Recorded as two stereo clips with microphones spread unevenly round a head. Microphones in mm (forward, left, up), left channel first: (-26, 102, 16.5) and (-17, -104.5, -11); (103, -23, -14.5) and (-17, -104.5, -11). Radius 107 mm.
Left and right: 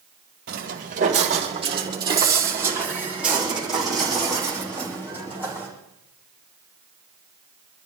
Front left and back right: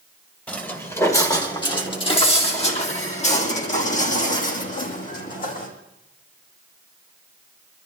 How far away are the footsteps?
About 2.5 m.